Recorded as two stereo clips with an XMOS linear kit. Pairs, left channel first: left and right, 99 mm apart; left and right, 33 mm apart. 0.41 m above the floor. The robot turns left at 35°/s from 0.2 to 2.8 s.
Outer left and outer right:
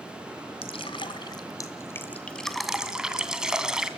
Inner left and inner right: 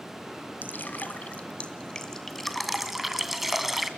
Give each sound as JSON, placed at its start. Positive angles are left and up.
{"t": 0.6, "sound": "dripping", "side_deg": 65, "distance_m": 2.0}